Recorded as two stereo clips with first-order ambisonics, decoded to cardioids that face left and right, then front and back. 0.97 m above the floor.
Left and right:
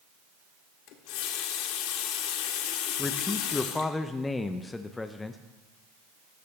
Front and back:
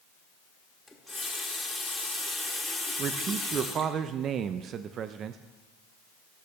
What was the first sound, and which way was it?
A running tap, 85° left.